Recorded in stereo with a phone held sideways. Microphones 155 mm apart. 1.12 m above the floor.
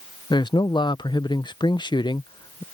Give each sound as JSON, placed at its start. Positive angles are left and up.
{"t": 0.3, "sound": "a man speaking", "side_deg": 30}